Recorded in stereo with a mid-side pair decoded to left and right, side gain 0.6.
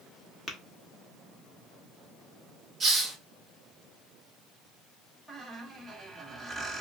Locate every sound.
0.5 s tapping: 35° left, 1.1 m
2.8 s a hiss: 30° right, 1.8 m
5.3 s a squeak: 5° right, 1.8 m